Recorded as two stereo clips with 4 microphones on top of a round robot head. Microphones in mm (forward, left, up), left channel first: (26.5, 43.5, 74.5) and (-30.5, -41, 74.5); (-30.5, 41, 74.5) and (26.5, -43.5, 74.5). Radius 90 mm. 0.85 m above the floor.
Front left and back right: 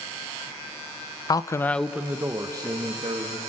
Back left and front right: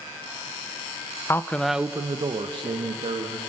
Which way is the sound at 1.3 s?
75° left.